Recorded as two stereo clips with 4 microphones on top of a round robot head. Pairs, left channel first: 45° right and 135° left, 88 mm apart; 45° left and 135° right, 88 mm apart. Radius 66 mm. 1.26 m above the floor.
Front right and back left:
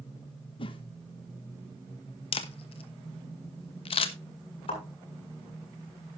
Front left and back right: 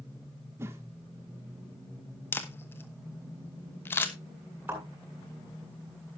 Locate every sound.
0.6 s a whoosh: 70° right, 1.3 m
2.3 s a camera shutter: 20° right, 1.1 m
4.7 s a thud: 65° right, 7 m